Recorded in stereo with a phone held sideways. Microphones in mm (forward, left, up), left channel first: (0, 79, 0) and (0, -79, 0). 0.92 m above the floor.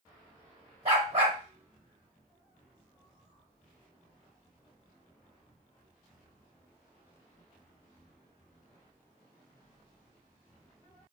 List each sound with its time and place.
0.8 s a dog barking: 40° right (ahead or behind), 0.8 m